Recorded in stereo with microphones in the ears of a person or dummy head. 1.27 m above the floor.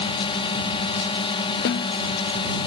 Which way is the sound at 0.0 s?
25° left (ahead or behind).